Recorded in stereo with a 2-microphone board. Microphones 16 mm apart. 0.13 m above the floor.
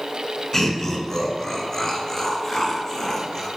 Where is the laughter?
25° left (ahead or behind), 1.6 m; by 3.5 s 20° left (ahead or behind), 2.5 m.